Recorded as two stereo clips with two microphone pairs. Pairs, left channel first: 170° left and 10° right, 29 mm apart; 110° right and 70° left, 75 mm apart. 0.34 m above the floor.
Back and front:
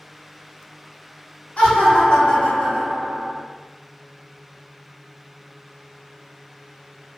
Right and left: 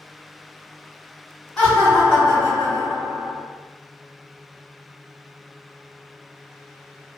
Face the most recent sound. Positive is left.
turn(degrees=160)